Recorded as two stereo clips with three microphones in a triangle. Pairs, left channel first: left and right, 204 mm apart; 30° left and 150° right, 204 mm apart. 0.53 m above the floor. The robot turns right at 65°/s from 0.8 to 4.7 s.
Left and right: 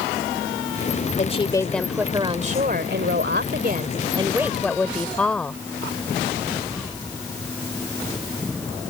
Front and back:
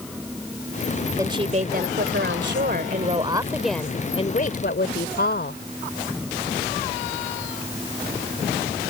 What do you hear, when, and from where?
1.2 s a woman speaking: 135° left; by 5.6 s 5° left